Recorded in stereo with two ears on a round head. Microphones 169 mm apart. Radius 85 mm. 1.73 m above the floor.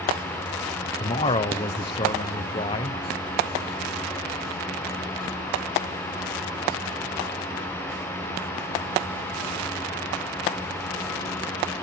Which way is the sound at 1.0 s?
30° left (ahead or behind).